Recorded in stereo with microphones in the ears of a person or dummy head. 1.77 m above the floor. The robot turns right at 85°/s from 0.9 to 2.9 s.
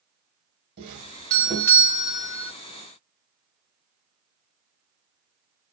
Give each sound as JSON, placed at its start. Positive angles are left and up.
{"t": 0.8, "sound": "a doorbell", "azimuth_deg": -55, "distance_m": 1.1}